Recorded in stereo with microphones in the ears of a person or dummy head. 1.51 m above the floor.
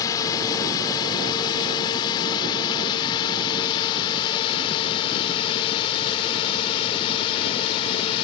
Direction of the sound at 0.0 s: 25° left (ahead or behind).